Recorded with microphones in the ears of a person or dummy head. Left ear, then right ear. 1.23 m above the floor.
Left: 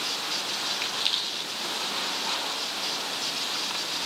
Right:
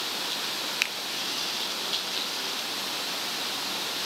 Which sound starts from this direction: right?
A finger snap, at 0.8 s.